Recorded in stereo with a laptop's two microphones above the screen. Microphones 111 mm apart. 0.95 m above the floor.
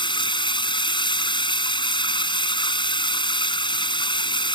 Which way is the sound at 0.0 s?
45° left (ahead or behind).